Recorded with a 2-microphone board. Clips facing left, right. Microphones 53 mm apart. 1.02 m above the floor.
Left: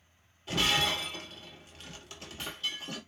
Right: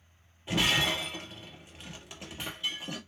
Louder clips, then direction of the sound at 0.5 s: Right 1 dB; 20° right (ahead or behind).